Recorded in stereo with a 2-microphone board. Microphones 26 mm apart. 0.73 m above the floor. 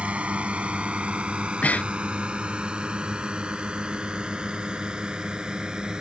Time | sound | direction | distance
0.0 | a drone | 50° right (ahead or behind) | ?
1.4 | breathing | 75° left (ahead or behind) | ?